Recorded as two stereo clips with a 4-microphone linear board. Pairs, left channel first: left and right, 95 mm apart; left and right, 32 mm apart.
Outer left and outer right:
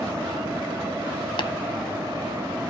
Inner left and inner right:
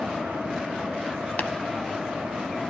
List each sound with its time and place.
1.4 s tapping: 55° left (ahead or behind), 0.6 m